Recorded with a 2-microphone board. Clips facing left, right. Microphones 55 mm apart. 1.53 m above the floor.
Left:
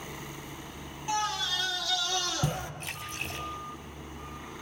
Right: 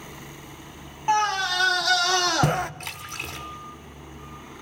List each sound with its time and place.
1.1 s a scream: 45° right (ahead or behind), 0.7 m; by 2.7 s 65° right (ahead or behind), 1.0 m
2.8 s a splash: 75° right (ahead or behind), 4.5 m